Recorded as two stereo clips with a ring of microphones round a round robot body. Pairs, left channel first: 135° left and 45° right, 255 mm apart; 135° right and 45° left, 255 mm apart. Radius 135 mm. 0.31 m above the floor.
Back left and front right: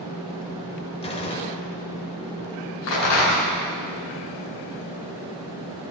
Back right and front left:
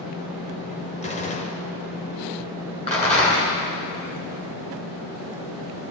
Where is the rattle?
160° left, 4 m.